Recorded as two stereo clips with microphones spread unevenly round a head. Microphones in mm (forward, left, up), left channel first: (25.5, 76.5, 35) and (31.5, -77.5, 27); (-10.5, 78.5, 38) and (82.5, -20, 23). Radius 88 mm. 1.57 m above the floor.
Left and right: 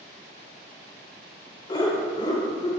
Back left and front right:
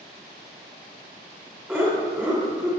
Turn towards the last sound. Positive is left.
turn(degrees=30)